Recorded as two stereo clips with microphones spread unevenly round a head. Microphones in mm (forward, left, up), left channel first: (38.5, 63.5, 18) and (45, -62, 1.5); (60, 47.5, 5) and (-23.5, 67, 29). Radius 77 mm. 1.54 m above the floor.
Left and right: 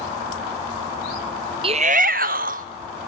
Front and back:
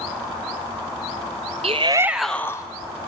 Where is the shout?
145° right, 0.9 m; by 2.6 s 75° right, 1.1 m.